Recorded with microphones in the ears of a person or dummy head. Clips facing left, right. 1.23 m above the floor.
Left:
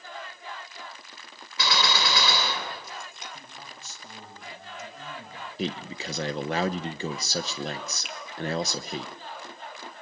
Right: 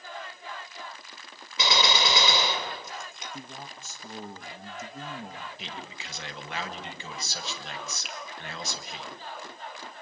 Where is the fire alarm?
I don't hear a fire alarm.